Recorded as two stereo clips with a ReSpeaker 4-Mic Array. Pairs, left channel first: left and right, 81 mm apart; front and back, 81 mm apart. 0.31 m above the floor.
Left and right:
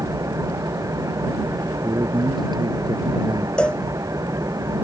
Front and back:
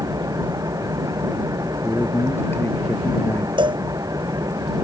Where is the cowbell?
170° left.